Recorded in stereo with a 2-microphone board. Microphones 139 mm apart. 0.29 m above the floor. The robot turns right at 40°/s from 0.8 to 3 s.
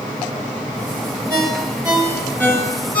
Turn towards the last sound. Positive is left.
turn(degrees=35)  # may be behind; listen again after turning